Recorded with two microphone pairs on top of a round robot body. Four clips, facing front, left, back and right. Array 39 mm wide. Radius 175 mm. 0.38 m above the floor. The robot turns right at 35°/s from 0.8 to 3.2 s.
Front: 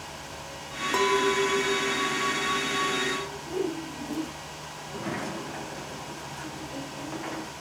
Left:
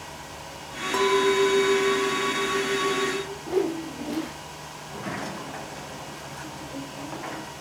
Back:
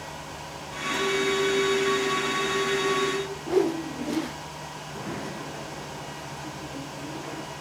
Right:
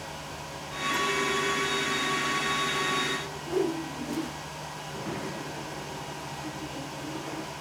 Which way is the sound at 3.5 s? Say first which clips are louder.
Left 2 dB, back 8 dB; 150° left.